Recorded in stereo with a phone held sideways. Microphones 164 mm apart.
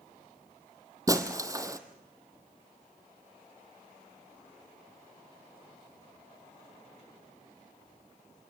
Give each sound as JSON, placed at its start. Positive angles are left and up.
{"t": 1.1, "sound": "breaking glass", "side_deg": -20, "distance_m": 1.7}